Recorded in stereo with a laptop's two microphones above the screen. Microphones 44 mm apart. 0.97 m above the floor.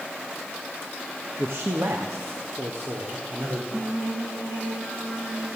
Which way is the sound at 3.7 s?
85° right.